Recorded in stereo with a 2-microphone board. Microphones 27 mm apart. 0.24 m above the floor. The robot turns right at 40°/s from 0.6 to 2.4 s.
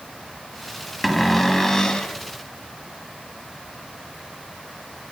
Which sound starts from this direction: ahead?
A cupboard door, at 1.0 s.